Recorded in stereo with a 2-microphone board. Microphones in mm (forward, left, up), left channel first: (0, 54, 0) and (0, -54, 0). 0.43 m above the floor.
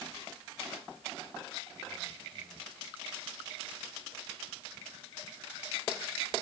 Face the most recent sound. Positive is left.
No sound to turn to.